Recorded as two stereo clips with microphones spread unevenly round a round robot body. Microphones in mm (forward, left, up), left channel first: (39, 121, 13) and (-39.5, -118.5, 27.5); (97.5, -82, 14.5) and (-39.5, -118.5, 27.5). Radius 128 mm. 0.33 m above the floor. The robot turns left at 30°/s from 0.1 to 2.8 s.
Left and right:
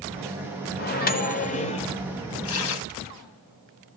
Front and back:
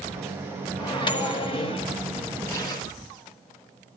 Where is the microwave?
50° left, 0.9 m; by 1.9 s 20° left, 0.9 m.